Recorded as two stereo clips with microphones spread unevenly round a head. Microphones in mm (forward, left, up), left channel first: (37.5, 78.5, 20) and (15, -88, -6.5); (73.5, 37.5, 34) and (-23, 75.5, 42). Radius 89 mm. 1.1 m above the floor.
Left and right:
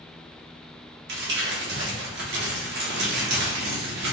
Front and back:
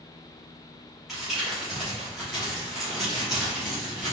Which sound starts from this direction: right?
Crumpling, at 1.1 s.